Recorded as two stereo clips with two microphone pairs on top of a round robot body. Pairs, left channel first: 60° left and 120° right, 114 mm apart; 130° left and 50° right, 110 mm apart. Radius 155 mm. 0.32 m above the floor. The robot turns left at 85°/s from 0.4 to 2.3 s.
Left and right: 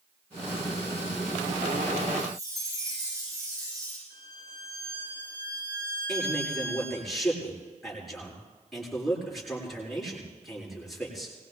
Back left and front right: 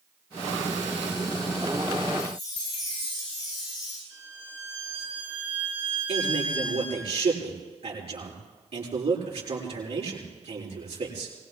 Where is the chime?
170° right, 10 m; by 4.0 s straight behind, 10 m.